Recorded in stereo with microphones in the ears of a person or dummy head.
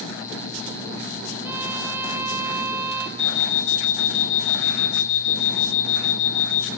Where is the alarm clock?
70° left (ahead or behind), 2.5 m.